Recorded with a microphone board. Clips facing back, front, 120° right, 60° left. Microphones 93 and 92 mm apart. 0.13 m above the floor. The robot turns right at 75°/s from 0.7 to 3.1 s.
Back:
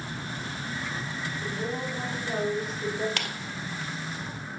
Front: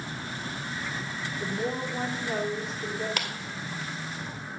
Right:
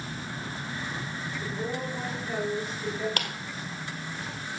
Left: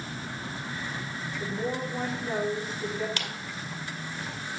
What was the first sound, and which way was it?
A woman speaking, 5° left.